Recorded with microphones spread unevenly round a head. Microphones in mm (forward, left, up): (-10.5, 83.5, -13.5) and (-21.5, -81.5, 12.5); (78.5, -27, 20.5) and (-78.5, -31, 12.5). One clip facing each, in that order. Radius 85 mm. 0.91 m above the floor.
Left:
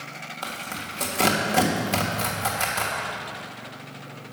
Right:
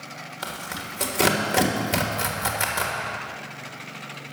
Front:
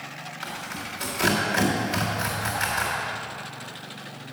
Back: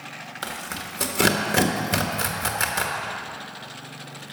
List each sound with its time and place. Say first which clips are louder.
0.4 s tearing paper: even, back 2 dB; straight behind, 1.4 m